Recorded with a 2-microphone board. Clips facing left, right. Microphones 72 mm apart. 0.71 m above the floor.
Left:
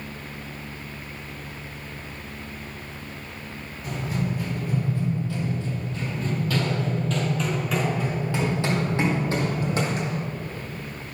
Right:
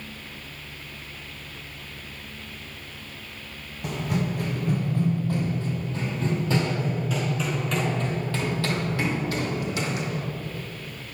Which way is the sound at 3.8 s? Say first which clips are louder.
Right 1 dB; 65° right (ahead or behind).